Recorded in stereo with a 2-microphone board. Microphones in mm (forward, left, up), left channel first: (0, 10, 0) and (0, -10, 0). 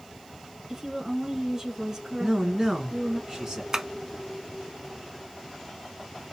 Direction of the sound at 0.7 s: 20° right (ahead or behind).